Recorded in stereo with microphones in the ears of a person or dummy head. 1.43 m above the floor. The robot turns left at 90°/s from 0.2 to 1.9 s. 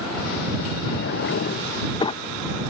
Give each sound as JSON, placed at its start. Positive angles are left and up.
{"t": 0.9, "sound": "a drawer", "azimuth_deg": 130}